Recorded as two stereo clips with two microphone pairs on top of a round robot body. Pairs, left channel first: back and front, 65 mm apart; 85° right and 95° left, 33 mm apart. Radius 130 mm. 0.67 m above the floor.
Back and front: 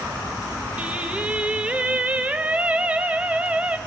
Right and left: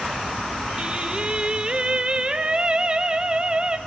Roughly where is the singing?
Ahead left.